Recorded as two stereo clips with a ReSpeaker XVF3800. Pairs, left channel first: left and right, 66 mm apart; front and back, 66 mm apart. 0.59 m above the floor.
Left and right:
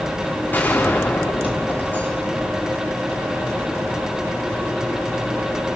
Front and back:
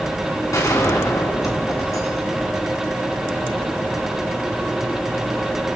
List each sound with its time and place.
0.5 s a gunshot: 30° left, 4 m